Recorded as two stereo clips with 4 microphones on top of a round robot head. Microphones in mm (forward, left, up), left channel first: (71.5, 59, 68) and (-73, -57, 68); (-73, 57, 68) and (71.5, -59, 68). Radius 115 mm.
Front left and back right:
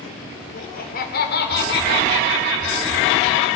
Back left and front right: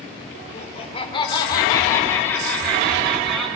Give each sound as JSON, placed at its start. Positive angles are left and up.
{"t": 0.5, "sound": "laughter", "azimuth_deg": 85, "distance_m": 2.5}